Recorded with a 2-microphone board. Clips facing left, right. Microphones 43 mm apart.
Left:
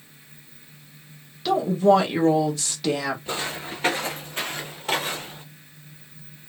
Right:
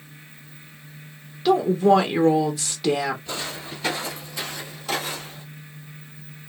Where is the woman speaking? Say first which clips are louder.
Right 1 dB; 10° right (ahead or behind), 0.6 m.